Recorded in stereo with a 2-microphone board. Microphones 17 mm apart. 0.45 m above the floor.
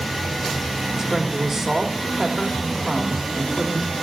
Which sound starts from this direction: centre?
A woman speaking, at 1.0 s.